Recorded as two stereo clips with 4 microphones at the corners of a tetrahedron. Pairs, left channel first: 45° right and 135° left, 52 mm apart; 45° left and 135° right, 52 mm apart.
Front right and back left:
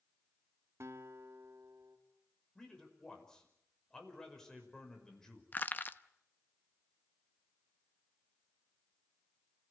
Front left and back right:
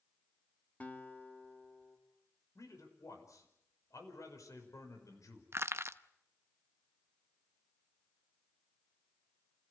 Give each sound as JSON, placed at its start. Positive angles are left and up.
{"t": 0.8, "sound": "a guitar", "azimuth_deg": 105, "distance_m": 2.5}
{"t": 2.5, "sound": "a man speaking", "azimuth_deg": 35, "distance_m": 6.0}
{"t": 5.5, "sound": "crushing", "azimuth_deg": -100, "distance_m": 0.8}